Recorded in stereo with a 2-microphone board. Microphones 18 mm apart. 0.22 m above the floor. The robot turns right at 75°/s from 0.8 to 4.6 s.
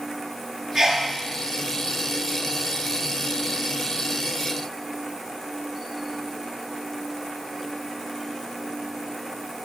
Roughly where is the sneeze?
Right.